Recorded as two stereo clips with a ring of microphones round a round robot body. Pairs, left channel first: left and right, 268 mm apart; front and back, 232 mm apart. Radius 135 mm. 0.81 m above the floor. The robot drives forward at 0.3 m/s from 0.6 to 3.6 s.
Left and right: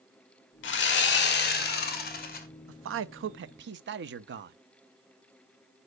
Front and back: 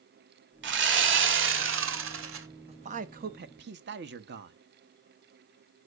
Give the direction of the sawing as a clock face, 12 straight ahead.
7 o'clock.